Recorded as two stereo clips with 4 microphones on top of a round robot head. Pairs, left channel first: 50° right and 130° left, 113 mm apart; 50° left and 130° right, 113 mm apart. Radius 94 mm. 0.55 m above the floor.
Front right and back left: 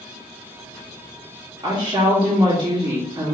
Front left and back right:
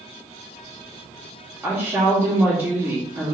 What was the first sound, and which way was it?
A woman speaking, 165° left.